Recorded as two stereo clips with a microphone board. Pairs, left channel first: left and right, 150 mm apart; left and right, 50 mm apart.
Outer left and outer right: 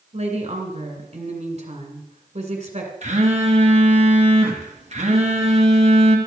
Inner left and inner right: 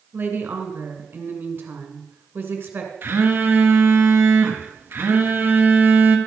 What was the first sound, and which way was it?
A woman speaking, 45° right (ahead or behind).